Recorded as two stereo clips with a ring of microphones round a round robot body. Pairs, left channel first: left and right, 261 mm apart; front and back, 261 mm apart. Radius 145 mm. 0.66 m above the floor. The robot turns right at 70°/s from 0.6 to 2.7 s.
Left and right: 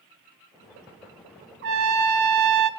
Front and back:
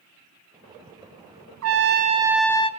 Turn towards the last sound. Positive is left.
turn(degrees=-70)